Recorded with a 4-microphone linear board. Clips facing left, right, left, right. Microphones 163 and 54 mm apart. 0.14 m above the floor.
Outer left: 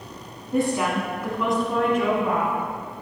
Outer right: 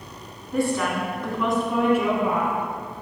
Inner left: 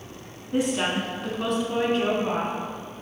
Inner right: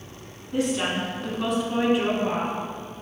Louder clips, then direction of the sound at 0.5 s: Outer left 1 dB, inner left 1 dB; 20° left (ahead or behind).